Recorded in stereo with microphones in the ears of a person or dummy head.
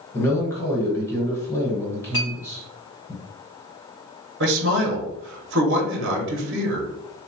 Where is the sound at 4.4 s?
60° right (ahead or behind), 0.7 m.